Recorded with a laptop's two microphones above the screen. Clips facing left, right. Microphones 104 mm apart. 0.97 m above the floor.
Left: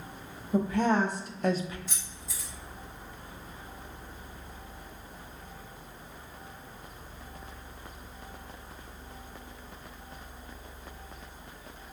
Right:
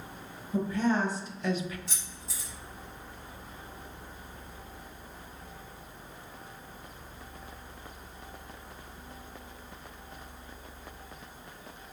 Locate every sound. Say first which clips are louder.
0.5 s a woman speaking: left 2 dB; 70° left (ahead or behind), 0.9 m; by 1.8 s 25° left (ahead or behind), 0.5 m
1.9 s keys jangling: even; 70° right (ahead or behind), 1.7 m